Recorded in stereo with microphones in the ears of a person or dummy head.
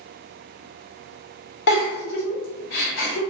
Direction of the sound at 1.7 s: 60° left (ahead or behind).